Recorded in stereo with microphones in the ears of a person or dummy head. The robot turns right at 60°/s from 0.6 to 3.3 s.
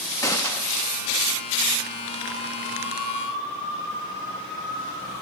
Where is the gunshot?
10° left (ahead or behind), 0.8 m; by 0.9 s 5° right (ahead or behind), 0.8 m.